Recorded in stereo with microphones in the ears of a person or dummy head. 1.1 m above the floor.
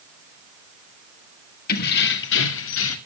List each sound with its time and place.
1.7 s keys jangling: 50° left (ahead or behind), 1.5 m; by 3.0 s 80° left, 1.8 m